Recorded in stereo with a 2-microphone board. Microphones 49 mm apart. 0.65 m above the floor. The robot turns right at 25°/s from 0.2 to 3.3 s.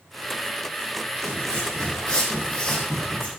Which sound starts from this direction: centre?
Footsteps, at 1.1 s.